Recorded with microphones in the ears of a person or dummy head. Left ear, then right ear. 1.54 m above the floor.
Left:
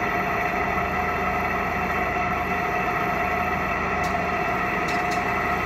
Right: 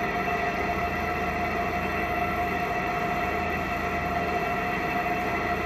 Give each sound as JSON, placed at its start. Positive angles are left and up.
{"t": 0.0, "sound": "an engine running", "side_deg": 25, "distance_m": 1.5}